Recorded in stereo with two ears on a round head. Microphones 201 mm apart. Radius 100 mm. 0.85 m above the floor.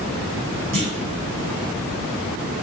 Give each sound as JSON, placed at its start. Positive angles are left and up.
{"t": 0.7, "sound": "a clunk", "side_deg": -40, "distance_m": 5.5}